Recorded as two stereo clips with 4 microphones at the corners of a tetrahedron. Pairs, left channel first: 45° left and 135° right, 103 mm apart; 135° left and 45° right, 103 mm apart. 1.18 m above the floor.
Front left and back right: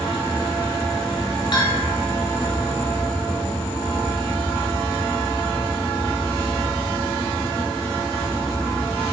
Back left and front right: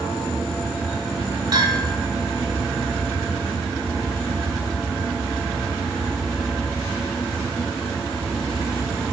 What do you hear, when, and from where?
1.5 s a bell: 5° left, 2.5 m